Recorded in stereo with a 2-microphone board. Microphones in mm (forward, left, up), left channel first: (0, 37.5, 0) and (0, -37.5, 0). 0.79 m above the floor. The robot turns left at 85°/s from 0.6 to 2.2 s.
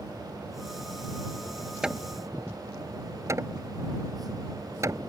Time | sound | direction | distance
1.8 | hammering | 10° right (ahead or behind) | ?